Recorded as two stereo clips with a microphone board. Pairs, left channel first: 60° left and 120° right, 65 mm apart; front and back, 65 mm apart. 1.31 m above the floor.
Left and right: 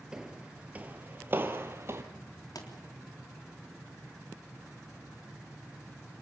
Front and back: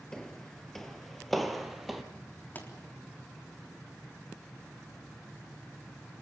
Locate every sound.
0.1 s footsteps: 65° right, 1.3 m; by 2.0 s 95° right, 1.9 m
2.5 s a pop: 60° left, 3.5 m